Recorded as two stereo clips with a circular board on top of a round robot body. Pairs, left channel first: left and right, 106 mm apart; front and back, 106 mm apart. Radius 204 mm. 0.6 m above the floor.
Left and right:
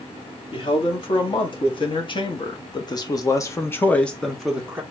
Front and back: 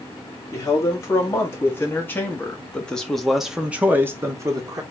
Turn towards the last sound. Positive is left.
turn(degrees=-160)